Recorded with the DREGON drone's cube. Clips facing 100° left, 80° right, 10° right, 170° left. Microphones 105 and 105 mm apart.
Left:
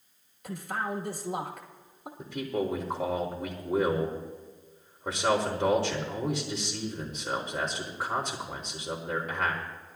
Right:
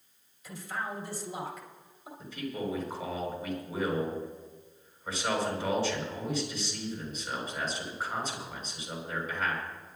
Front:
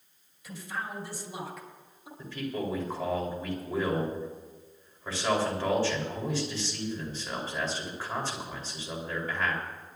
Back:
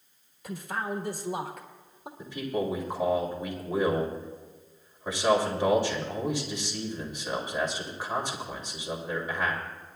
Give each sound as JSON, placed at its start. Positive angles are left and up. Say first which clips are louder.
{"t": 0.4, "sound": "a man speaking", "louder": "left 4 dB, back 4 dB", "azimuth_deg": 135, "distance_m": 1.3}
{"t": 2.2, "sound": "a man speaking", "louder": "left 5 dB, back 3 dB", "azimuth_deg": 95, "distance_m": 3.0}